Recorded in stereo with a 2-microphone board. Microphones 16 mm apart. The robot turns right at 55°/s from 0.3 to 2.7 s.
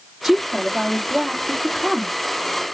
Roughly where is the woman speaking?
Behind right.